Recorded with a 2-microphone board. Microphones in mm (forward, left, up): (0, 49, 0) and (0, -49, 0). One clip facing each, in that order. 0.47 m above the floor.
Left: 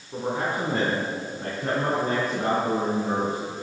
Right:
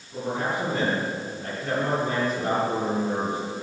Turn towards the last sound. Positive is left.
turn(degrees=60)  # may be behind; listen again after turning